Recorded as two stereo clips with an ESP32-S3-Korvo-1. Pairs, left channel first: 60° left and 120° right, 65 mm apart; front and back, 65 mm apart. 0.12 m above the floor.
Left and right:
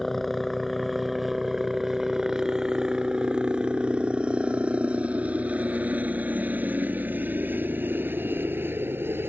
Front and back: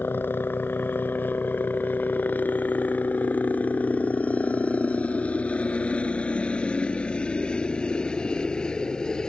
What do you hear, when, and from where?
0.0 s a helicopter: 25° right; by 9.3 s 75° right